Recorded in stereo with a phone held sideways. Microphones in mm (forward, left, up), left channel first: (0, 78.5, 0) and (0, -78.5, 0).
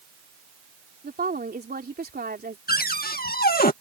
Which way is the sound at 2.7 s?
70° left (ahead or behind).